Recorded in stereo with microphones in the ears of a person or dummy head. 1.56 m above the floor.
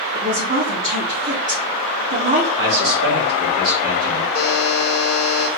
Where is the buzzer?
45° left (ahead or behind), 1.2 m.